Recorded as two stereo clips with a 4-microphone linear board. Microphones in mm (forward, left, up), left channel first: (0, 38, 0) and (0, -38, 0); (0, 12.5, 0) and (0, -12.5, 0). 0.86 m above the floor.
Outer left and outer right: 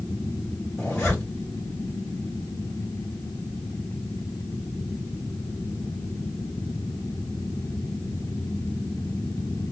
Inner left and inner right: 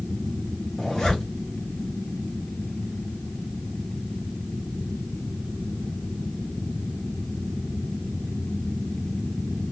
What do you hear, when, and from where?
0.8 s a zipper: 25° left (ahead or behind), 1.5 m